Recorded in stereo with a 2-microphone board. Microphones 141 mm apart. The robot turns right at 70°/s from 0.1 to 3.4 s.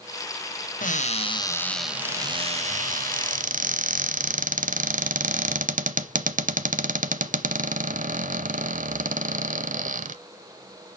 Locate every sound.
0.8 s a cupboard door: 70° left (ahead or behind), 0.6 m; by 10.2 s 70° right (ahead or behind), 0.6 m